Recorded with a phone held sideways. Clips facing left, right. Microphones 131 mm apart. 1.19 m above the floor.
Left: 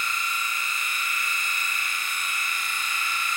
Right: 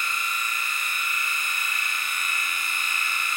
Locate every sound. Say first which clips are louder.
0.0 s a machine running: even; 55° right (ahead or behind), 5 m